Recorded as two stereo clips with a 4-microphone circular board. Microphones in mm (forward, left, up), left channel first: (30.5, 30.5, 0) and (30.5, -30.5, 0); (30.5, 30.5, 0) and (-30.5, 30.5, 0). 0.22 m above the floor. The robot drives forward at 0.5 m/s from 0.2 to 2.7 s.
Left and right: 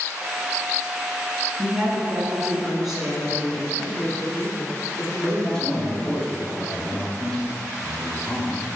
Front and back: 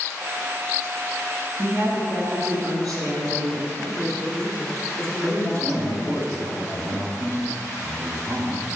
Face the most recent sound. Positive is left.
turn(degrees=160)